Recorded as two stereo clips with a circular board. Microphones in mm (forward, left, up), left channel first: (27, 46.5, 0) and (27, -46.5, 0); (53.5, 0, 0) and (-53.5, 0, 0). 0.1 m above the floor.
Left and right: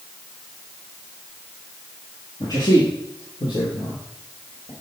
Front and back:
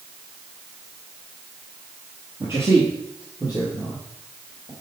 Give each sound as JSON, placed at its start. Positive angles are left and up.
{"t": 2.4, "sound": "a man speaking", "azimuth_deg": 125, "distance_m": 1.9}